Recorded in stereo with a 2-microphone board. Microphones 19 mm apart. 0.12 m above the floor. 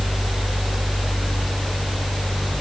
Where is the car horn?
No car horn in this recording.